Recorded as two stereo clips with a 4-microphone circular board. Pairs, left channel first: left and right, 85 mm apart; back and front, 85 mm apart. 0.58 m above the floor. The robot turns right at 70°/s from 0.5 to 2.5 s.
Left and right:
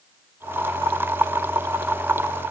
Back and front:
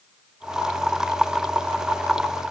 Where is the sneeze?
I don't hear a sneeze.